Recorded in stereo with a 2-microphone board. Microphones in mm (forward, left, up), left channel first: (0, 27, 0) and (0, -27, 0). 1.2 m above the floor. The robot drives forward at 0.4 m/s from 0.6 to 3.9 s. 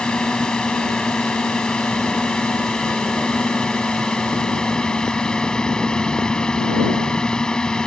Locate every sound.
0.0 s a drone: 15° left (ahead or behind)